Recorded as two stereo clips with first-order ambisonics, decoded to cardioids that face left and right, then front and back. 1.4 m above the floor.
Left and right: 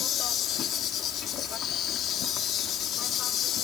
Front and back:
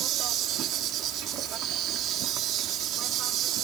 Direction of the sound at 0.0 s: 140° left.